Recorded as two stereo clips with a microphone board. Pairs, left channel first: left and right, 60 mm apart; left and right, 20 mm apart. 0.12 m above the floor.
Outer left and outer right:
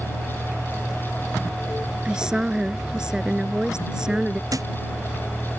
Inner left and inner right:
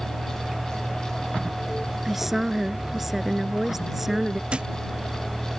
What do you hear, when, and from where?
0.0 s a vehicle: 5° left (ahead or behind); by 5.6 s 5° right (ahead or behind)
2.0 s a woman speaking: 10° right (ahead or behind)
4.5 s a thud: 75° right (ahead or behind)